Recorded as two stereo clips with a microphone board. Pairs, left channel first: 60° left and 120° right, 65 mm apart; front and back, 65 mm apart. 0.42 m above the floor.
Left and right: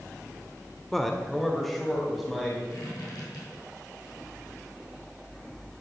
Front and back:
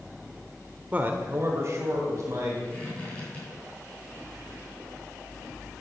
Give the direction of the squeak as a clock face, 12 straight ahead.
10 o'clock.